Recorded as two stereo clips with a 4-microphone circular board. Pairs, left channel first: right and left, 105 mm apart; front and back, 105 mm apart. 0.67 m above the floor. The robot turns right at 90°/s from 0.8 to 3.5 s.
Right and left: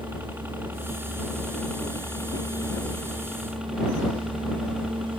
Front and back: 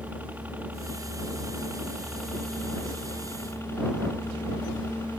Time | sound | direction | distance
0.0 | a helicopter | 130° left | ?